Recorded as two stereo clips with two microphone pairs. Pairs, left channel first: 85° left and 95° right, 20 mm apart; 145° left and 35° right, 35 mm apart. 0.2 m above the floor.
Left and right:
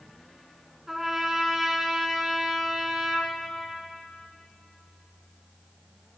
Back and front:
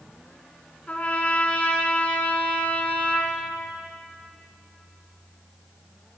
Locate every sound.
0.9 s a trumpet: 170° right, 1.4 m